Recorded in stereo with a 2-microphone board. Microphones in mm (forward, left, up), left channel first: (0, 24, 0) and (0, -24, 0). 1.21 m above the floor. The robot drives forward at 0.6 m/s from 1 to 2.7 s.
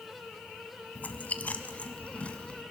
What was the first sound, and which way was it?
Chewing, 35° left (ahead or behind).